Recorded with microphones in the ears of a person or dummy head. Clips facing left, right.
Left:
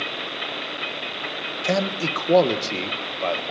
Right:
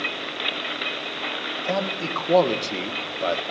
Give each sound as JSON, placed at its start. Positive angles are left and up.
{"t": 1.6, "sound": "a man speaking", "side_deg": 30, "distance_m": 1.7}